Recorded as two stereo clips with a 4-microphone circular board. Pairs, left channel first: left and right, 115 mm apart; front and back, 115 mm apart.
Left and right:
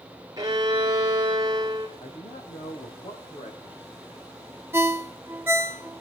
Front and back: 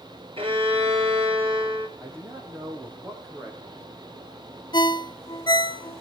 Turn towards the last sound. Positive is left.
turn(degrees=-30)